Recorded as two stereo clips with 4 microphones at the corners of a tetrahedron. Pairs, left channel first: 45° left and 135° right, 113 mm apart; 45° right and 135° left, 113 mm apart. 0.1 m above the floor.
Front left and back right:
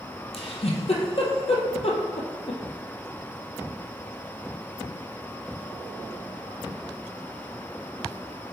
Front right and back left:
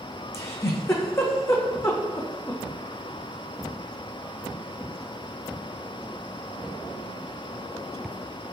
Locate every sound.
0.3 s a giggle: 20° left, 0.7 m